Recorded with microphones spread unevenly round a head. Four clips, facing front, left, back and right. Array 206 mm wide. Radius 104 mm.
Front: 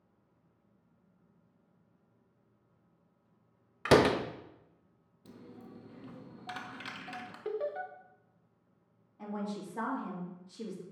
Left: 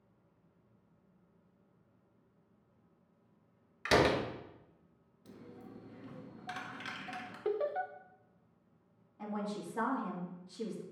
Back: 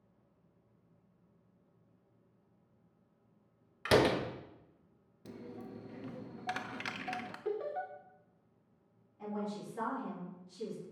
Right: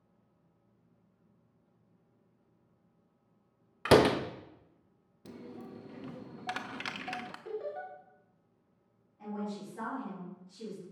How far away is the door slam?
About 0.7 m.